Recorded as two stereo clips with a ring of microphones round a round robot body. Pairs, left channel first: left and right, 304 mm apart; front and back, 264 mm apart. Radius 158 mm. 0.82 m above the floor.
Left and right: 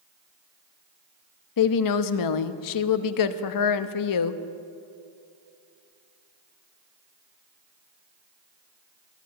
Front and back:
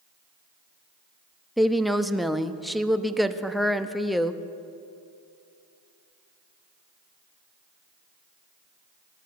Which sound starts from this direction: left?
A woman speaking, at 1.6 s.